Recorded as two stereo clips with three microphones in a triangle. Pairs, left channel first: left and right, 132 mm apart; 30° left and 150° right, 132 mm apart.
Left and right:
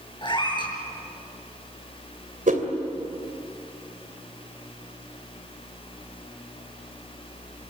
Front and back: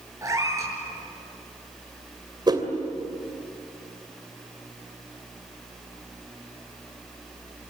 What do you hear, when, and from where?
0.2 s a cat meowing: 145° left, 6 m
2.5 s a whoosh: 95° right, 2.5 m